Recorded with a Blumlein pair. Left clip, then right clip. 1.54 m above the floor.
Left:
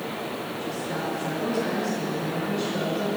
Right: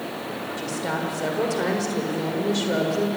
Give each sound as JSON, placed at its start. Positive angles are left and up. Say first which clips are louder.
{"t": 0.6, "sound": "a woman speaking", "louder": "right 4 dB", "azimuth_deg": -45, "distance_m": 6.0}